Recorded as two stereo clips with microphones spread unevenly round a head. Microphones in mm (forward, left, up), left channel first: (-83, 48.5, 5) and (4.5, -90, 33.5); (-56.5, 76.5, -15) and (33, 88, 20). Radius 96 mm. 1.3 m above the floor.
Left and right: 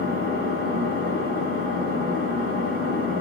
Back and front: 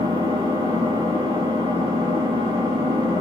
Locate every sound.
0.0 s an engine running: 10° right, 4 m